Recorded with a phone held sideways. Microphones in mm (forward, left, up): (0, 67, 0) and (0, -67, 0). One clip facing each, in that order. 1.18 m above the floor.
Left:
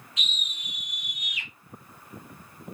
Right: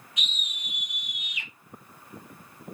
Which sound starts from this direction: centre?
A scream, at 0.2 s.